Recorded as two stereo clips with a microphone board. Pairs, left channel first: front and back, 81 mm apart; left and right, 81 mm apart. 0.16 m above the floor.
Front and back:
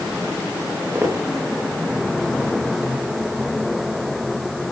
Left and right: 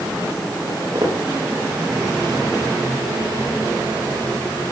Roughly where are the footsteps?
Behind right.